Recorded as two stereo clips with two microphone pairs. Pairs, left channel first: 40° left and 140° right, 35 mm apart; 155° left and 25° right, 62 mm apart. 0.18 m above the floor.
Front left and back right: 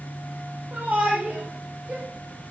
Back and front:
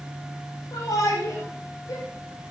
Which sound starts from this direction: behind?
A shout, at 0.7 s.